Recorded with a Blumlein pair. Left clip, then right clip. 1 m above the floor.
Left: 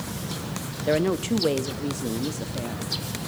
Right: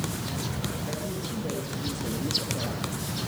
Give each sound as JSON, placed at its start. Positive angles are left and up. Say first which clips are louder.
{"t": 0.9, "sound": "a woman speaking", "louder": "left 10 dB", "azimuth_deg": 55, "distance_m": 0.9}